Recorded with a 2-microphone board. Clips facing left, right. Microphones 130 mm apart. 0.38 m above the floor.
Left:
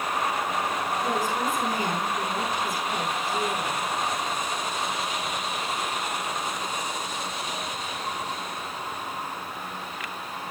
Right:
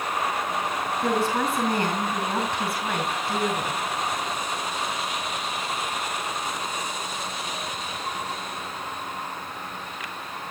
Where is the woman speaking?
70° right (ahead or behind), 4.5 m.